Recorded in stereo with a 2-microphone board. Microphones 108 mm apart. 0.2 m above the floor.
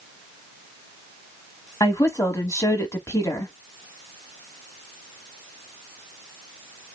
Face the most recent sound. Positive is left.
turn(degrees=30)  # may be behind; listen again after turning